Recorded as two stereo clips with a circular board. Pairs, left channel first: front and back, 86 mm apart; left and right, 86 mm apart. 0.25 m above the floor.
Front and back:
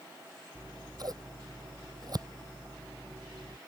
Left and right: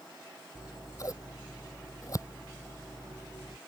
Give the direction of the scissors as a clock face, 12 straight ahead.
7 o'clock.